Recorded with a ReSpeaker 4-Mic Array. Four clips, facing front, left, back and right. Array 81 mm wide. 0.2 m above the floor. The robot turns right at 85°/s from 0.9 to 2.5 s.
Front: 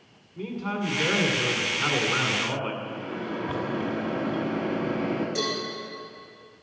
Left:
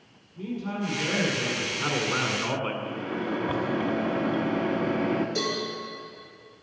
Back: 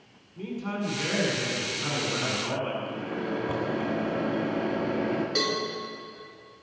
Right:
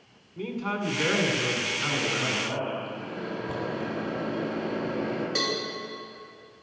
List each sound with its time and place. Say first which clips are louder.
0.4 s a man speaking: right 1 dB, front 2 dB; 70° right, 2 m; by 2.7 s 65° left, 2 m
2.8 s a microwave: left 4 dB, back 1 dB; 80° left, 1.5 m
5.3 s a cowbell: even, back 1 dB; 115° right, 3 m